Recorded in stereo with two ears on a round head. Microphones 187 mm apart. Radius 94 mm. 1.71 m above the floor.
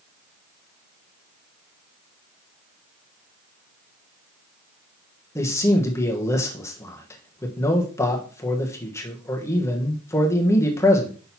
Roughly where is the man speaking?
Centre.